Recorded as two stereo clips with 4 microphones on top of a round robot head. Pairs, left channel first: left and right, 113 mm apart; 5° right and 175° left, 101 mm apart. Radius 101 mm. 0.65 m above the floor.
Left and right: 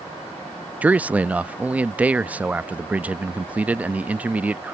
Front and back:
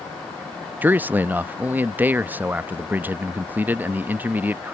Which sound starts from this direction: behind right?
A man speaking, at 0.8 s.